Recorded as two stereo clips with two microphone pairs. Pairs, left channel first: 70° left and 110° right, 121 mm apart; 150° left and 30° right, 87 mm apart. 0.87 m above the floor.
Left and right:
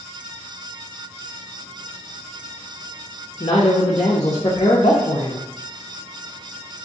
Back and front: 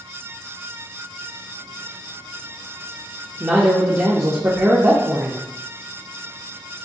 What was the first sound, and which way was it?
A man speaking, 25° left.